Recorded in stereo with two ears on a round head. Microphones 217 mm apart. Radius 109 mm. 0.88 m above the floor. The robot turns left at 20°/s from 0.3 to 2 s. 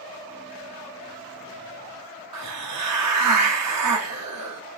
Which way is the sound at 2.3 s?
80° right.